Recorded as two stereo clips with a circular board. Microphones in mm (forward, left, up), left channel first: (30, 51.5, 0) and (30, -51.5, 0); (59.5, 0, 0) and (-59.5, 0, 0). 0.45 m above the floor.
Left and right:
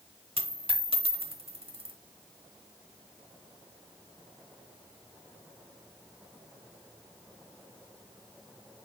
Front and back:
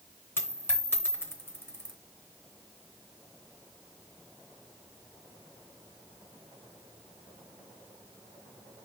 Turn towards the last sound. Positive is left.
turn(degrees=-70)